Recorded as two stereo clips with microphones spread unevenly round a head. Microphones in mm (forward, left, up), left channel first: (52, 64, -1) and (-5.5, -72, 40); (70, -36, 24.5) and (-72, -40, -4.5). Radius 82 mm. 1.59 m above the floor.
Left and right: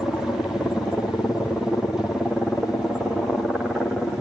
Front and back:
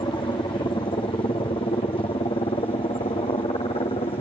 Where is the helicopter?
15° left; by 4.2 s 5° right.